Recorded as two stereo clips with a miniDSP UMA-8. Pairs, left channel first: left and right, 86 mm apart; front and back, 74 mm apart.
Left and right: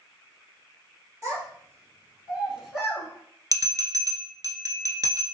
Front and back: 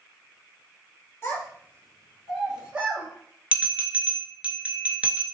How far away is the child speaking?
About 1.6 m.